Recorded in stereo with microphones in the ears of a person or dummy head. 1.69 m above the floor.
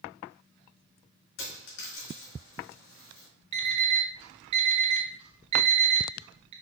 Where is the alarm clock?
30° right (ahead or behind), 1.4 m.